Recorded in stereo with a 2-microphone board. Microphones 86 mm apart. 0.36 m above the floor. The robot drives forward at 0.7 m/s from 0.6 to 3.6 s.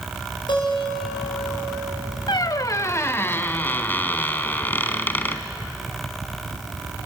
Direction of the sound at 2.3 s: 55° left (ahead or behind).